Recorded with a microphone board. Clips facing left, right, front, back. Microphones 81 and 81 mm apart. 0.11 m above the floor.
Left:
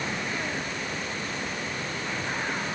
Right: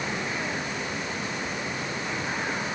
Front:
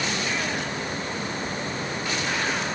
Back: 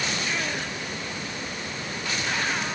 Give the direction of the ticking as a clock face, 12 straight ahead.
I don't hear ticking.